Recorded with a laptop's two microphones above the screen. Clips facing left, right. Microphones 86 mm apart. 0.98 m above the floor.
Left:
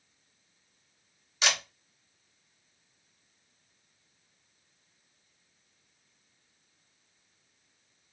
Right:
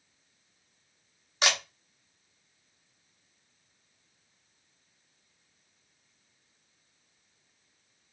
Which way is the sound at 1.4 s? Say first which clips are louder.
Right 2 dB; 45° right (ahead or behind).